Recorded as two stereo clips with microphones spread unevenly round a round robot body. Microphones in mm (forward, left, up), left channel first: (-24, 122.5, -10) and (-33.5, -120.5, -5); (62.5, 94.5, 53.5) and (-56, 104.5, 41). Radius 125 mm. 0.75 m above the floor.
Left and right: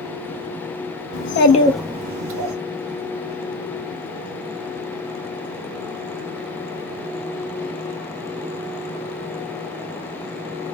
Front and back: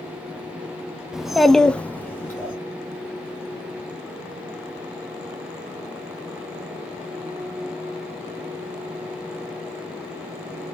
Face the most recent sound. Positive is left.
turn(degrees=-80)